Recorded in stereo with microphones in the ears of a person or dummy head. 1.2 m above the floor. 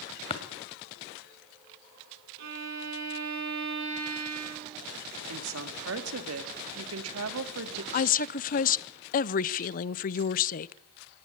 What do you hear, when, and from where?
0.3 s tapping: 30° left (ahead or behind), 1.8 m
2.4 s a violin: 75° right (ahead or behind), 4 m
5.3 s a woman speaking: 85° right, 1.8 m
7.9 s a woman speaking: 50° left (ahead or behind), 0.5 m